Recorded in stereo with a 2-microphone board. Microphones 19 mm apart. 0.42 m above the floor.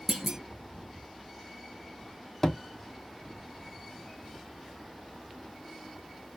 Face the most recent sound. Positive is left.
turn(degrees=30)  # may be behind; listen again after turning